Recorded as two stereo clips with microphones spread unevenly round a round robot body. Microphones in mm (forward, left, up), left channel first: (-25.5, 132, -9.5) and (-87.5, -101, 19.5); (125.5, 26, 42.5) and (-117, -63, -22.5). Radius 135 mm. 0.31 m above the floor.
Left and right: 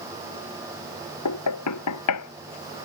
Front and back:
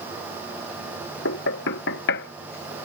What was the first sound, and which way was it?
Knocking, 70° left.